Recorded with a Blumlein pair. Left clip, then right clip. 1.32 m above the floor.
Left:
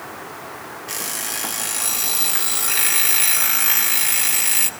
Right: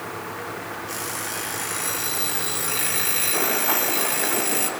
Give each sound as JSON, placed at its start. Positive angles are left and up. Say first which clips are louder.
{"t": 0.9, "sound": "an alarm clock", "louder": "left 5 dB", "azimuth_deg": 20, "distance_m": 1.4}